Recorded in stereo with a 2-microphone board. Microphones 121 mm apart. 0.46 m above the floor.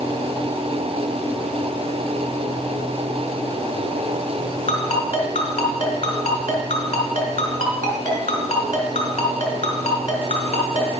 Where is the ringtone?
70° left (ahead or behind), 2.5 m.